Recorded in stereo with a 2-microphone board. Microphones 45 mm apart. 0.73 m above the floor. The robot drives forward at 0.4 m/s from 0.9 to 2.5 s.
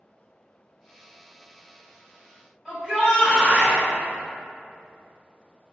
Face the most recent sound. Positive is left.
turn(degrees=-5)  # may be behind; listen again after turning